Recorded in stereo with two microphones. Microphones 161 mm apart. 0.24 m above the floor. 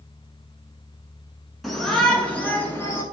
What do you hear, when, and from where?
1.6 s a shout: centre (ahead or behind), 3 m; by 3.0 s 15° left (ahead or behind), 3.5 m